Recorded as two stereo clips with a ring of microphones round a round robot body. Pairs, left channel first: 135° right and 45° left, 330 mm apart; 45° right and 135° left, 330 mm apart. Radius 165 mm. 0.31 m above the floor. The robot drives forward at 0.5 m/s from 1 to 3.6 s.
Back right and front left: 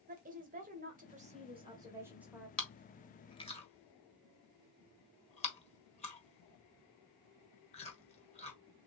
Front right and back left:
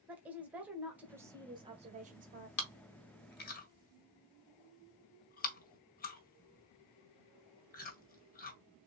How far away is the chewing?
About 1.6 m.